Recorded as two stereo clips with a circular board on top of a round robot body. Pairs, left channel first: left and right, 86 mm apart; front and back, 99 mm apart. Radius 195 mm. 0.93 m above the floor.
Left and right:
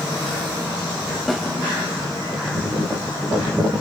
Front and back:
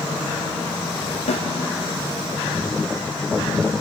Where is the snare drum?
Straight ahead, 1.9 m.